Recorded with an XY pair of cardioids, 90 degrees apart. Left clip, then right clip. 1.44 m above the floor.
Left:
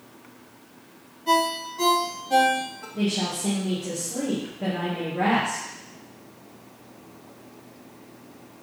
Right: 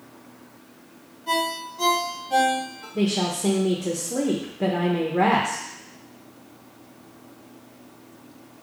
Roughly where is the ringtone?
Ahead left.